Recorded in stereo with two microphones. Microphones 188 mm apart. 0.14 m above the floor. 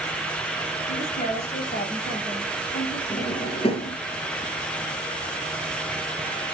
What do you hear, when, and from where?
0.9 s a woman speaking: 40° left (ahead or behind), 3 m
3.1 s a drawer: 30° left (ahead or behind), 1.3 m